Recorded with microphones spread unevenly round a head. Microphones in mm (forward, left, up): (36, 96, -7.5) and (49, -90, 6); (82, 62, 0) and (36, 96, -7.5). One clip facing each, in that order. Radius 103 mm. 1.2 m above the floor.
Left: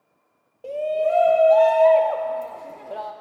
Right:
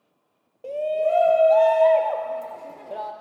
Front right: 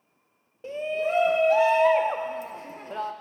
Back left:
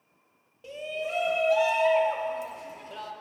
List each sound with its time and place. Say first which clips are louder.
0.6 s a shout: left 1 dB, front right 6 dB; 10° left, 0.5 m